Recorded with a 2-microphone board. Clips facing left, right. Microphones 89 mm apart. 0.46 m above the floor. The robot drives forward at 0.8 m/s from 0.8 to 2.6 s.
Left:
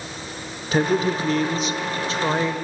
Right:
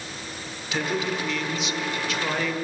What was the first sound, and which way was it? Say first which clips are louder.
A man speaking: left 7 dB; 40° left (ahead or behind).